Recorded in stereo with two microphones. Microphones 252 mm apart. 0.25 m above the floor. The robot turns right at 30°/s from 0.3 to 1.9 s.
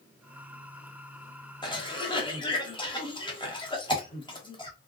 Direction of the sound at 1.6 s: 20° left (ahead or behind).